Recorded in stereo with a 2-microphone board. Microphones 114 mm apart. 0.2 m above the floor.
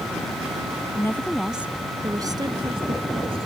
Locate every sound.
0.9 s a woman speaking: 25° left (ahead or behind); by 3.5 s 55° right (ahead or behind)